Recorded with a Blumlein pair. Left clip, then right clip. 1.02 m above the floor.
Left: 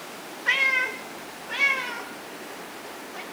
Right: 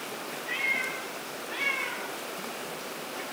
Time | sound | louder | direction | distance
0.5 | a cat meowing | left 7 dB | 50° left | 1.7 m